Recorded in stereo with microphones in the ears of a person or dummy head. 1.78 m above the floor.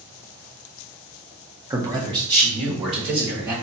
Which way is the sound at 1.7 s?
20° right (ahead or behind).